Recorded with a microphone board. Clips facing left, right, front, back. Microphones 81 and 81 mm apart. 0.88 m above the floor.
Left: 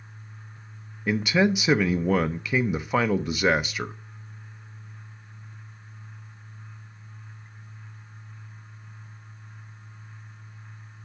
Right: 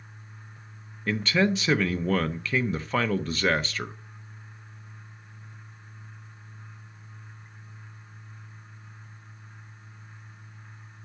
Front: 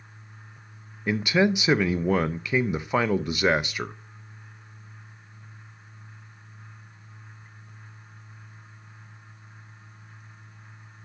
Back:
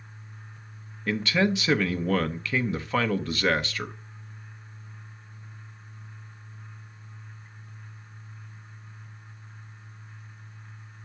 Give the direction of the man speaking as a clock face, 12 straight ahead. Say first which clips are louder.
Left 2 dB, front 2 dB; 11 o'clock.